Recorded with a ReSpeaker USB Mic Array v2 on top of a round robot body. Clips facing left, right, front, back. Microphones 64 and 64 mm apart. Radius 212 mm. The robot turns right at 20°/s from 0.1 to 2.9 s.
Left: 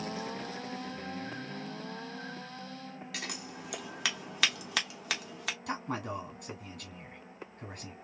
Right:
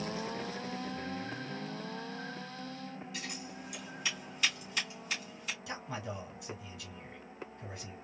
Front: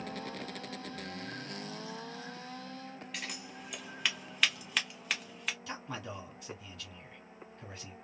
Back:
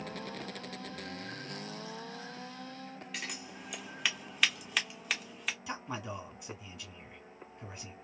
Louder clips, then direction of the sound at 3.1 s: Left 2 dB, back 1 dB; 90° left.